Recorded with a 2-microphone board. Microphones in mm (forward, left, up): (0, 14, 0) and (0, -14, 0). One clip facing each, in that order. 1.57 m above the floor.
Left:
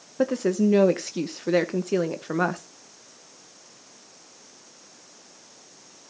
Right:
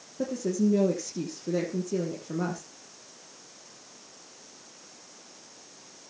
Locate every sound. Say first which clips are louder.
0.2 s a woman speaking: left 5 dB; 70° left (ahead or behind), 1.1 m